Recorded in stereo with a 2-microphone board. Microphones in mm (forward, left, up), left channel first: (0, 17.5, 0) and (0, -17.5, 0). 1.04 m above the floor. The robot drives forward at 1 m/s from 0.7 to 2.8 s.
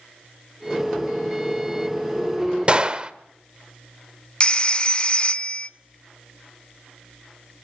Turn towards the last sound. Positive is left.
turn(degrees=30)  # may be behind; listen again after turning